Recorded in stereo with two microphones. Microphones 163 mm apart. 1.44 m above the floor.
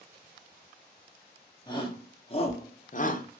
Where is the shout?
25° left (ahead or behind), 1.2 m; by 3.2 s 50° left (ahead or behind), 0.5 m.